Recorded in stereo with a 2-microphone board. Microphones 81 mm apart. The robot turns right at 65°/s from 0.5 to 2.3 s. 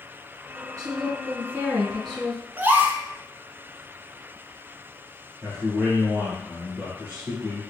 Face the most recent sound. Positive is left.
turn(degrees=-25)  # may be behind; listen again after turning